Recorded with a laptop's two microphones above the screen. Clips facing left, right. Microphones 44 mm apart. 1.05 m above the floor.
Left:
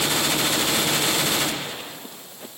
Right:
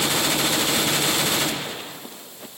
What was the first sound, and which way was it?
Only background noise.